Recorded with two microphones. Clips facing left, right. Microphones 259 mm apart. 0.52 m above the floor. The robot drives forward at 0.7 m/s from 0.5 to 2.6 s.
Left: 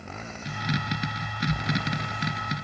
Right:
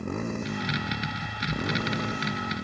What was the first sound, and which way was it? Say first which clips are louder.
A motorcycle: right 10 dB; 55° right (ahead or behind).